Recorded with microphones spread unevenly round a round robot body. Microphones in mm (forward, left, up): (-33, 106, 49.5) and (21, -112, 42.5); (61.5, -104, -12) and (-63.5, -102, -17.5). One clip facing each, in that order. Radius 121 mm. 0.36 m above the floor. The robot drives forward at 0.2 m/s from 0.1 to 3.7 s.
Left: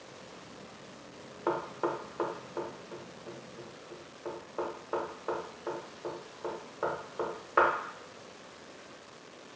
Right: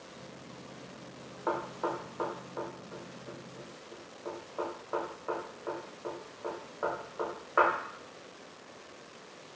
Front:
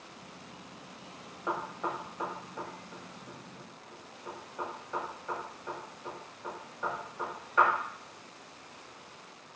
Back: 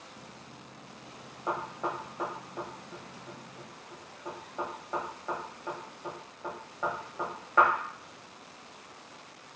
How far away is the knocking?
About 0.6 m.